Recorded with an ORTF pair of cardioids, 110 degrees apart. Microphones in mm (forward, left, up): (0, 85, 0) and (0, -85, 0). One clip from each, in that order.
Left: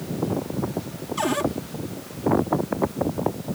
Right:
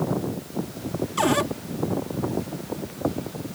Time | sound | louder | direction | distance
1.2 | a cupboard door | right 2 dB | 20° right | ?